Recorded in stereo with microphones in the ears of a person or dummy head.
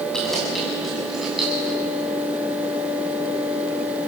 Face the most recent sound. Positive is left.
turn(degrees=0)  # may be behind; listen again after turning